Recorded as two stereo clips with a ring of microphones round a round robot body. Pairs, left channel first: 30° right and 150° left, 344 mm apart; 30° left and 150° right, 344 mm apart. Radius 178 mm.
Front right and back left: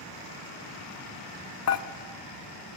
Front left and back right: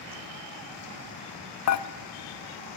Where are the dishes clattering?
5° left, 0.9 m.